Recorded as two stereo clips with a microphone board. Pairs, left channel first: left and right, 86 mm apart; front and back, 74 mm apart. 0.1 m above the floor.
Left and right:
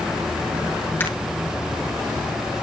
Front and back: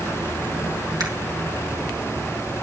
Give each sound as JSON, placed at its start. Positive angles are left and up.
{"t": 1.0, "sound": "a camera shutter", "azimuth_deg": 155, "distance_m": 3.0}